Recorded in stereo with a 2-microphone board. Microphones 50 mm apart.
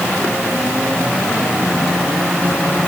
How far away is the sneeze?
I don't hear a sneeze.